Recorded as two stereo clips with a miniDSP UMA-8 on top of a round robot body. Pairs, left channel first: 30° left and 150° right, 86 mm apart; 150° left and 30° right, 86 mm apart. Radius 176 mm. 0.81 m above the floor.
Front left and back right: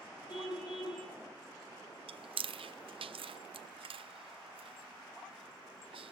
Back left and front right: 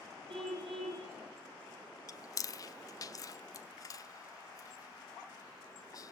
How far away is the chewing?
About 1.1 m.